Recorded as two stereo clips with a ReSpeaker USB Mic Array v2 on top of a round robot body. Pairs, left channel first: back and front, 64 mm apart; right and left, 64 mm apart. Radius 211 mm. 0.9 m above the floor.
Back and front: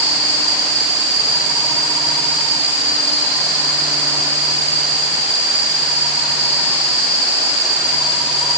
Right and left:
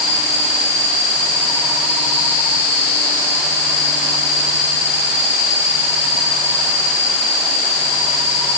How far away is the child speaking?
No child speaking in this recording.